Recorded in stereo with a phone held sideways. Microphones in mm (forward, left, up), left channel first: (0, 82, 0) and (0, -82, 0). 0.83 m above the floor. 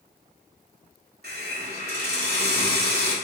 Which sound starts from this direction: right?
A hiss, at 1.2 s.